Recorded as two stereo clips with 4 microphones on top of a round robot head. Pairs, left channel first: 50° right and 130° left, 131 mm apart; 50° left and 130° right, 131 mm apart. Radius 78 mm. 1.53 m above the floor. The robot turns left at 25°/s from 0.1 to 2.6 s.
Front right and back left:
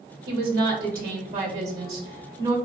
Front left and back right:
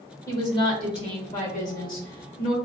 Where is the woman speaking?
115° left, 1.0 m; by 2.5 s 60° left, 1.0 m.